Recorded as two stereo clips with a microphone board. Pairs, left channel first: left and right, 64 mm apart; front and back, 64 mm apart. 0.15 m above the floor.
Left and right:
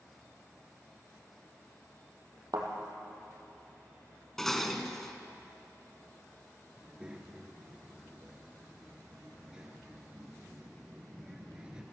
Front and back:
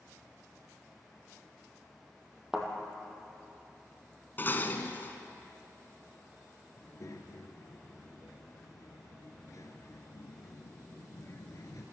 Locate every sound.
2.5 s a thud: 95° right, 2.5 m
4.4 s dishes clattering: 10° left, 1.0 m
6.8 s a child speaking: 15° right, 2 m